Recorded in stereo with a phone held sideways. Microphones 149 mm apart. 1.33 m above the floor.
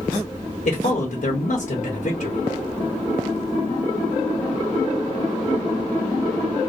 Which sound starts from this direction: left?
A man speaking, at 0.7 s.